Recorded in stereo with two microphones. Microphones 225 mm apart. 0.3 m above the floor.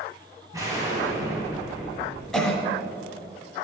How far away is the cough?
About 1.4 m.